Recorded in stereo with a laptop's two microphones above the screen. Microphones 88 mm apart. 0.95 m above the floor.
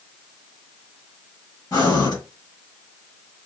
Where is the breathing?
45° left (ahead or behind), 1.3 m.